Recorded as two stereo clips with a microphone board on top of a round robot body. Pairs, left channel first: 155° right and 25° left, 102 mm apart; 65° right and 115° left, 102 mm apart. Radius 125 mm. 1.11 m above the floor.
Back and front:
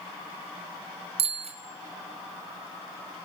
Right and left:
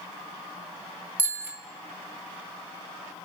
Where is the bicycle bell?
40° left, 3 m.